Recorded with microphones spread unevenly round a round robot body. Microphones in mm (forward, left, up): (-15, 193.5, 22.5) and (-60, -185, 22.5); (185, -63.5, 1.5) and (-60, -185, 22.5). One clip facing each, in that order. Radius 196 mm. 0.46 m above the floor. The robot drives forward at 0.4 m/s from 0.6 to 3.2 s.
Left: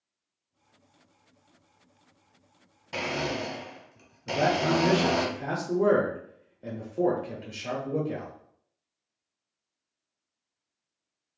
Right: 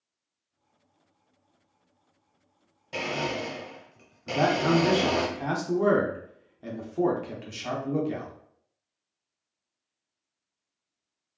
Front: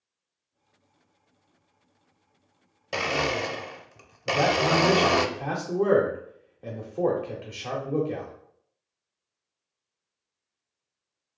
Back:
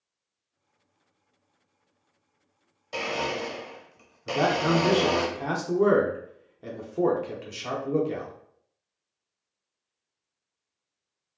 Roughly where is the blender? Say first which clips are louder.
Even, front 2 dB; ahead.